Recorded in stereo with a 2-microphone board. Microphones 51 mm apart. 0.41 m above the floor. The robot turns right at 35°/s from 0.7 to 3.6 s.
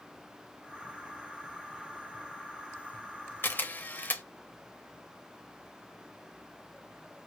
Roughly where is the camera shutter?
Left.